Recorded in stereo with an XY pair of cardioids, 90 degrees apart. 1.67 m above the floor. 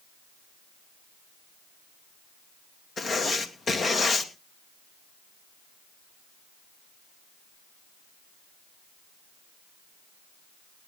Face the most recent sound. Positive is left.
turn(degrees=50)